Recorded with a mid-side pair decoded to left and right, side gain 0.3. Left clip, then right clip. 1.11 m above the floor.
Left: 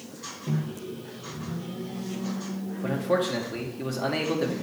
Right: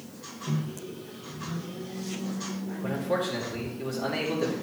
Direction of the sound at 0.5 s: 35° left.